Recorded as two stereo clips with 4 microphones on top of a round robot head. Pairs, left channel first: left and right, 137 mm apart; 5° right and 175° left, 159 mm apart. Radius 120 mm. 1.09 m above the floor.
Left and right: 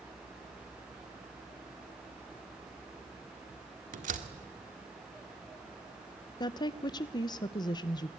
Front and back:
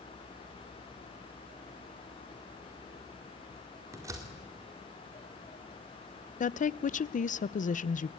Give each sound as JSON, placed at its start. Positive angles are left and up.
{"t": 3.9, "sound": "a door slam", "azimuth_deg": -110, "distance_m": 1.9}
{"t": 6.4, "sound": "a woman speaking", "azimuth_deg": 30, "distance_m": 0.6}